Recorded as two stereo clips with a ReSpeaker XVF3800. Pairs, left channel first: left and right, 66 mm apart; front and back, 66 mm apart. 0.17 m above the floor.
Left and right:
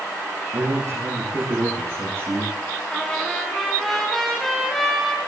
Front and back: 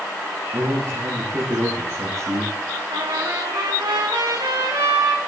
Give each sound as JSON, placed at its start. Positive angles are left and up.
{"t": 0.5, "sound": "a man speaking", "azimuth_deg": -130, "distance_m": 7.5}
{"t": 2.9, "sound": "a trumpet", "azimuth_deg": 175, "distance_m": 4.0}